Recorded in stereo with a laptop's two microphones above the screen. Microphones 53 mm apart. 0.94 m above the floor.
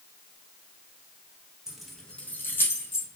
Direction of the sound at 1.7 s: 10° right (ahead or behind).